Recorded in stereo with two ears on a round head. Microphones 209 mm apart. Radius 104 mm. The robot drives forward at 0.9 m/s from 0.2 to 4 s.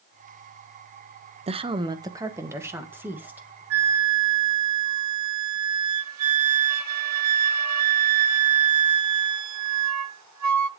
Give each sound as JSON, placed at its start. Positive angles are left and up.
{"t": 1.5, "sound": "a woman speaking", "side_deg": -25, "distance_m": 0.8}
{"t": 3.7, "sound": "a flute", "side_deg": -65, "distance_m": 0.9}